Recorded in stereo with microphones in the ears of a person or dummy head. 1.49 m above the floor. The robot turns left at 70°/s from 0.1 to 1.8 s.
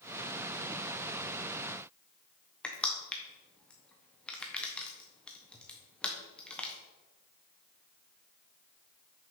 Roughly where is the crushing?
Centre.